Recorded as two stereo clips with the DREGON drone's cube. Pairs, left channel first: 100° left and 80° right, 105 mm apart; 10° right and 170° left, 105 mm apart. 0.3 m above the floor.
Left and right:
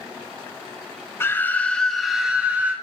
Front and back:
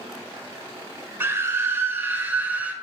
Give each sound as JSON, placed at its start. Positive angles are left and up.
{"t": 1.2, "sound": "a scream", "azimuth_deg": 130, "distance_m": 1.2}